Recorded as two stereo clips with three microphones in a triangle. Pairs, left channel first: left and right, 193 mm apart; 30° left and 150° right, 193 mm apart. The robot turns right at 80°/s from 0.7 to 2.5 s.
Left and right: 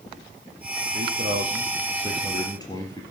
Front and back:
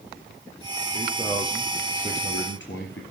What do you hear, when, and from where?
0.9 s a man speaking: 105° right, 3.5 m; by 3.0 s 20° left, 3.5 m